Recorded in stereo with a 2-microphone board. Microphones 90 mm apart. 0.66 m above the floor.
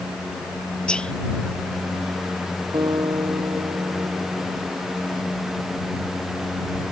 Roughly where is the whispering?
Centre.